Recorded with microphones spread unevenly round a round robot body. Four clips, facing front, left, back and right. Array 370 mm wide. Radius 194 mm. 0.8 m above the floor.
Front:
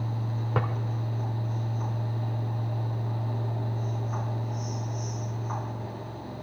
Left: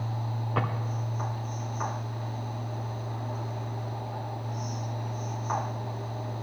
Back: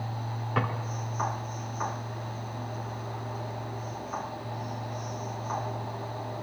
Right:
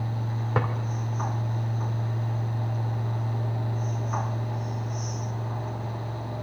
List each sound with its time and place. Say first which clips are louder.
0.6 s a drawer: right 3 dB, even; 50° right, 1.3 m